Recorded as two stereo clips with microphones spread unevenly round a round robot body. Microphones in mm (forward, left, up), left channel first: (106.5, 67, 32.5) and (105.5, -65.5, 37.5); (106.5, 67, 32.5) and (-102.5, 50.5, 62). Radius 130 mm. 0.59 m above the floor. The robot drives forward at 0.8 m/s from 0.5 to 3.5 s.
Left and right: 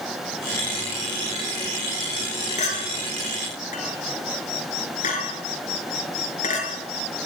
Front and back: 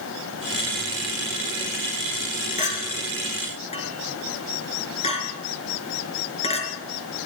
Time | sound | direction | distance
2.6 | a clink | 60° left | 5 m